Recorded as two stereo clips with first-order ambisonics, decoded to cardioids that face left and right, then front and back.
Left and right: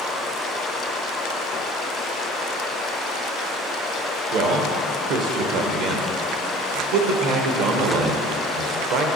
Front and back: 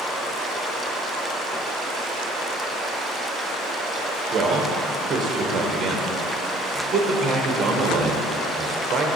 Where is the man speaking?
115° right, 0.9 m.